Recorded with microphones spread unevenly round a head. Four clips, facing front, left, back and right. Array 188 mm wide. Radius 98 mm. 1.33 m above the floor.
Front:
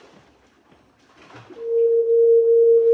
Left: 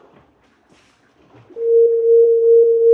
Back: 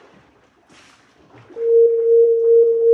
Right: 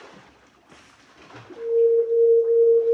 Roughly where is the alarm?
Behind left.